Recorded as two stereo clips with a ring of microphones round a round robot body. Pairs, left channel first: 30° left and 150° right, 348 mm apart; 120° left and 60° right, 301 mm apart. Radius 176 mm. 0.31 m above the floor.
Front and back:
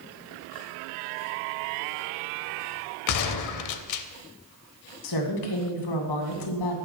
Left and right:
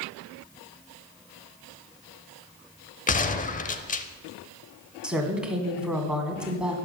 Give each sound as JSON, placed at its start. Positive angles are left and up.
{"t": 3.1, "sound": "a gunshot", "azimuth_deg": 55, "distance_m": 0.7}
{"t": 5.0, "sound": "a woman speaking", "azimuth_deg": 25, "distance_m": 2.0}